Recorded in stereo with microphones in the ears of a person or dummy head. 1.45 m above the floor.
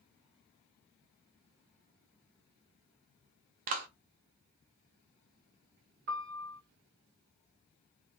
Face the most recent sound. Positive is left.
turn(degrees=-50)  # may be behind; listen again after turning